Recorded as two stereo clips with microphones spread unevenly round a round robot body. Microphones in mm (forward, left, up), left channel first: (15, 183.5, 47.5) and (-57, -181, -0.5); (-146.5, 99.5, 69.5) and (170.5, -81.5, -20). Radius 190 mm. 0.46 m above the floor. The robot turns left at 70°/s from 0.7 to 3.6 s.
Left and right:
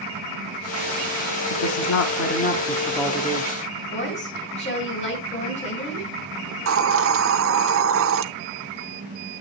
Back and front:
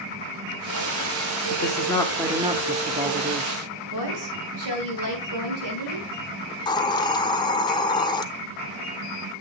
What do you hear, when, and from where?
1.5 s a woman speaking: 85° left, 1.1 m; by 3.5 s 55° right, 1.1 m
3.9 s a woman speaking: 5° left, 6 m
6.5 s a hiss: 120° right, 0.7 m